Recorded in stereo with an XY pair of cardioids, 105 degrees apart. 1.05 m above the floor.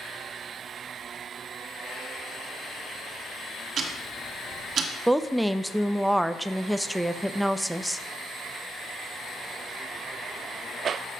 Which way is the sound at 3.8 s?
55° right.